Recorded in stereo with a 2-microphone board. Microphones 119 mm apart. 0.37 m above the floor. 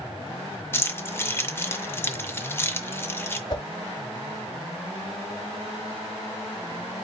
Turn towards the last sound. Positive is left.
turn(degrees=40)  # may be behind; listen again after turning